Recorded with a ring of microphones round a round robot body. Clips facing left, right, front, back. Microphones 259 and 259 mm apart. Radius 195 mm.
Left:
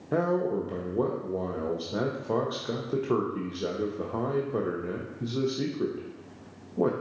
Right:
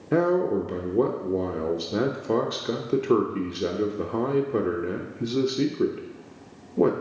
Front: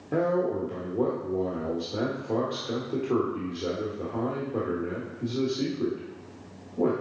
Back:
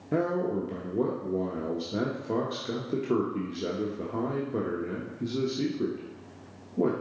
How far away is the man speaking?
About 0.9 m.